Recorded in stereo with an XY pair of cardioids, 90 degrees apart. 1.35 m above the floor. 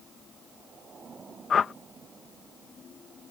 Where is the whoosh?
55° left.